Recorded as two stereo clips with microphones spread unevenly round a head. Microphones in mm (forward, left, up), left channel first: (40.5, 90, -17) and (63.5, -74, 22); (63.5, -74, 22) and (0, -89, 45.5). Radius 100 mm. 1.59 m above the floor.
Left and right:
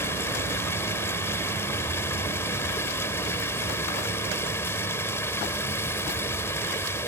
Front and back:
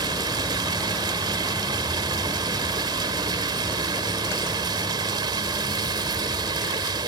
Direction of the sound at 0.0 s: Straight behind.